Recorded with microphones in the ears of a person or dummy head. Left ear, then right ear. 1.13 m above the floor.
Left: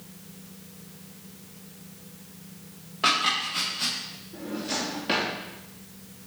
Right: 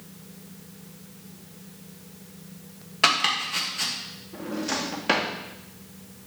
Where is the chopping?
55° right (ahead or behind), 1.7 m.